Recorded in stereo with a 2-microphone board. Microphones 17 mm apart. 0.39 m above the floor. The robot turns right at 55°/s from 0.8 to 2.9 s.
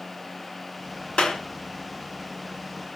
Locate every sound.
1.2 s a clap: 70° left (ahead or behind), 4 m; by 1.4 s 60° left (ahead or behind), 4 m